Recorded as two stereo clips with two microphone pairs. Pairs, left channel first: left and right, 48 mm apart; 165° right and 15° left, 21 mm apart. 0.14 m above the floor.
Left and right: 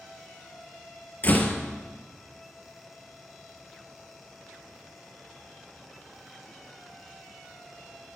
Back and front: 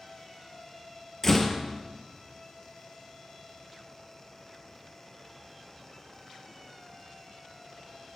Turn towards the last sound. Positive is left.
turn(degrees=130)